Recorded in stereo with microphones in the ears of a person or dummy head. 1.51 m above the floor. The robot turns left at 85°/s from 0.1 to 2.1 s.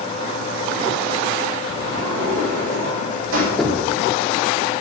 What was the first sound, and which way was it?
A sliding door, 45° right.